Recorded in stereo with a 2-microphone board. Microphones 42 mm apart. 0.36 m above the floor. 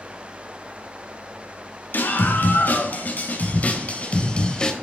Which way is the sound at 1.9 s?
60° left (ahead or behind).